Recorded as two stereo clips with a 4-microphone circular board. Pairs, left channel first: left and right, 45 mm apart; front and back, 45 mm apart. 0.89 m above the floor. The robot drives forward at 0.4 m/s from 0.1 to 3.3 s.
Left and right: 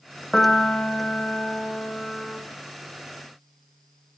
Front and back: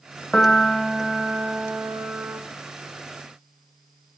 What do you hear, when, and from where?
0.3 s a piano: 45° left, 0.7 m; by 2.4 s 160° left, 0.9 m